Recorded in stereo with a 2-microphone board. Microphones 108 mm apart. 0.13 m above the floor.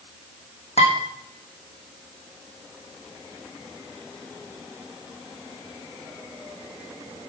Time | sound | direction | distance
0.8 | dishes clattering | 80° left | 5 m